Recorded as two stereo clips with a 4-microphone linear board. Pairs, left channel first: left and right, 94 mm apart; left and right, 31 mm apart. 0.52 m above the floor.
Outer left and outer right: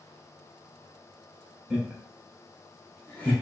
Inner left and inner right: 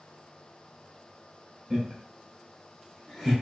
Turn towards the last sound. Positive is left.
turn(degrees=10)  # may be behind; listen again after turning